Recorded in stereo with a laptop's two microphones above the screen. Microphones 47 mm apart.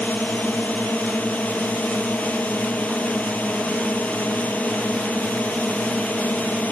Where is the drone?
35° left (ahead or behind).